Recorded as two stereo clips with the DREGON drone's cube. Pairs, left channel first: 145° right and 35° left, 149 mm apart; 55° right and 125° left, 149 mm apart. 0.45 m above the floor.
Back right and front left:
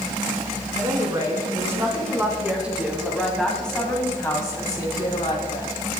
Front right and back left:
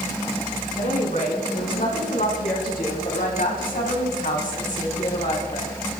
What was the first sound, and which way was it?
A woman speaking, 30° right.